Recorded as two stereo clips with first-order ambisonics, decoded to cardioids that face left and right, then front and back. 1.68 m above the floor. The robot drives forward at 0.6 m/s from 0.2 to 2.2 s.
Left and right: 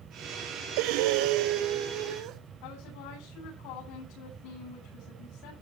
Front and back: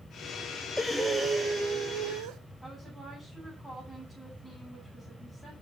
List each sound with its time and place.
0.8 s breathing: 85° right, 0.8 m; by 2.4 s 135° right, 1.1 m
2.6 s a woman speaking: 100° left, 9.5 m